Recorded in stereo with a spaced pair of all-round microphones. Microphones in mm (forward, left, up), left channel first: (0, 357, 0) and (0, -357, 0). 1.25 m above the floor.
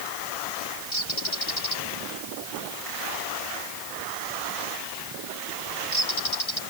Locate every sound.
0.9 s a bird: 40° left (ahead or behind)